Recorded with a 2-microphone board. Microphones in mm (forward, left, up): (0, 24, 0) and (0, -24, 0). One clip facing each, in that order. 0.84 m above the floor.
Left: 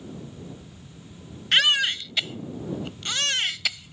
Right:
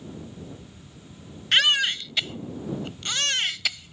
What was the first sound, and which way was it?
A baby crying, centre (ahead or behind).